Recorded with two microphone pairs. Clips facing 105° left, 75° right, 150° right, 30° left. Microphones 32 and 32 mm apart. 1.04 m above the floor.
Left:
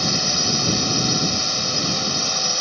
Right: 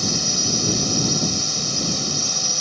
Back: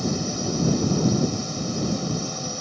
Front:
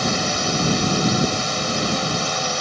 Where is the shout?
No shout in this recording.